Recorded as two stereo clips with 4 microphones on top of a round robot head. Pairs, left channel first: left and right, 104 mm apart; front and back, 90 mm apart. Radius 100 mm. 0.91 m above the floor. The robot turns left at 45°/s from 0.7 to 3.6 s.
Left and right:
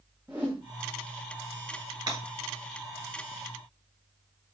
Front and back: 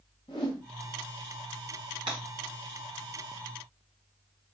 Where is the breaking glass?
135° right, 3 m; by 2.2 s 140° right, 3 m.